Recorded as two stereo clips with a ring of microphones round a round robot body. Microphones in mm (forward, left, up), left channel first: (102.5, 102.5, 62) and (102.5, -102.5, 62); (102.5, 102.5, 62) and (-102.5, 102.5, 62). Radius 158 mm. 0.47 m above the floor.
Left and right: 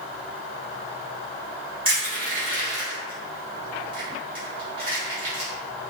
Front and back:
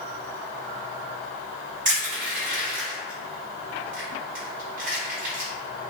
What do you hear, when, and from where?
1.9 s crushing: 145° right, 1.6 m